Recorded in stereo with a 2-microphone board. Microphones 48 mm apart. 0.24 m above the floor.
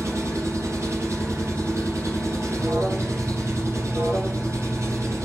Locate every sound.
0.0 s an engine running: 65° right (ahead or behind), 3.5 m
2.6 s an alarm: 55° right (ahead or behind), 2.5 m